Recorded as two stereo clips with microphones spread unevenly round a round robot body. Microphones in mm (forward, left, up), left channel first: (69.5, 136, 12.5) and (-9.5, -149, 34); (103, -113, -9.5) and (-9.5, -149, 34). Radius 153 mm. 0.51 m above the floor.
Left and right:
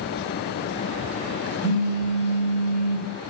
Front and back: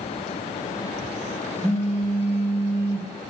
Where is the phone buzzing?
110° left, 1.5 m.